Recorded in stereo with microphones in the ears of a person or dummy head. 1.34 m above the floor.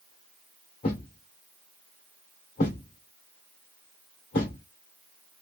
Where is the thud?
30° left (ahead or behind), 1.1 m.